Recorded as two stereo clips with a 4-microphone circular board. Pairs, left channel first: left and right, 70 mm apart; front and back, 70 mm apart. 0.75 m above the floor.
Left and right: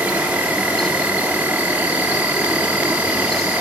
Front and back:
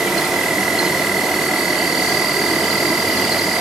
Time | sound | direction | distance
0.0 | an insect | 95° right | 0.8 m